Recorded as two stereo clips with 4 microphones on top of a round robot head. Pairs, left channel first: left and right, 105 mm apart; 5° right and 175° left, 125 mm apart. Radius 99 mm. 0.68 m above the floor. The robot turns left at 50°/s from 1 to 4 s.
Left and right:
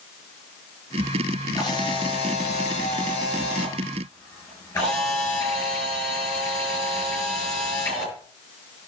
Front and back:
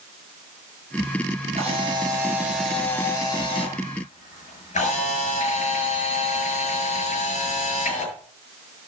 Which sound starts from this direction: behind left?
A camera shutter, at 1.6 s.